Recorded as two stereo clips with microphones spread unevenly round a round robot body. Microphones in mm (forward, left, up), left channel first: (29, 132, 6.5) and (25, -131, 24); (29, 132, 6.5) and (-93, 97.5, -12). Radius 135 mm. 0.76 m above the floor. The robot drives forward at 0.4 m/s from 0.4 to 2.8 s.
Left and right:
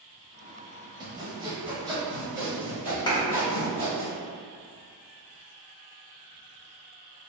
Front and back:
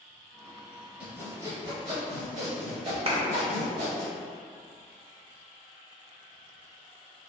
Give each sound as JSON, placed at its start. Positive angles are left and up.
{"t": 1.0, "sound": "sawing", "azimuth_deg": -70, "distance_m": 0.5}
{"t": 3.1, "sound": "a clap", "azimuth_deg": 160, "distance_m": 0.6}